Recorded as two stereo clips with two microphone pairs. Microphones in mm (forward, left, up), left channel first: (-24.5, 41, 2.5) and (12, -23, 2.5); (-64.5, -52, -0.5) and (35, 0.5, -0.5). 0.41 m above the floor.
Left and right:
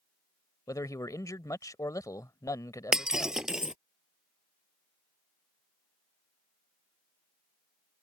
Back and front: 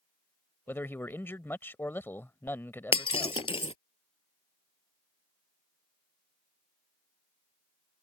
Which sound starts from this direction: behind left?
A man speaking, at 0.7 s.